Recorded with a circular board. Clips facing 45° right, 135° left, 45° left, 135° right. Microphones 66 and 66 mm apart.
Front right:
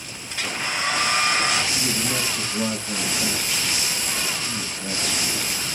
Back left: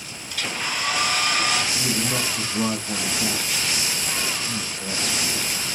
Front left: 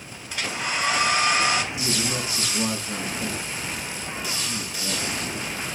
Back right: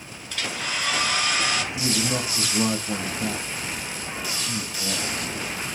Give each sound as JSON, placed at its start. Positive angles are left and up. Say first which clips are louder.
{"t": 0.3, "sound": "a hair dryer", "louder": "front right 1 dB, front left 2 dB", "azimuth_deg": -15, "distance_m": 1.1}
{"t": 1.7, "sound": "a man speaking", "louder": "back left 1 dB, back right 2 dB", "azimuth_deg": -155, "distance_m": 3.0}